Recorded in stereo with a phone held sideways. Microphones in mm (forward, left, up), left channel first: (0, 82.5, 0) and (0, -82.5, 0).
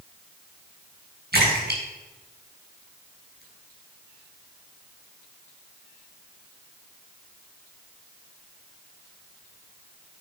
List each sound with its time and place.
1.3 s a splash: 80° right, 5 m